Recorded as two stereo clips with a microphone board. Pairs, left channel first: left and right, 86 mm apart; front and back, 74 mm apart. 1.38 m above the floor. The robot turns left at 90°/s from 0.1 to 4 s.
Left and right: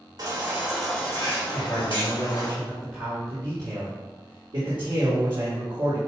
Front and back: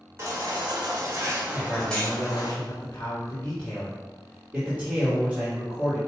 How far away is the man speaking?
About 2.5 m.